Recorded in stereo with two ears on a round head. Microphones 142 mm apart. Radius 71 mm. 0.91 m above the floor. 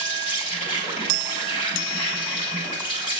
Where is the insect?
35° left (ahead or behind), 4 m.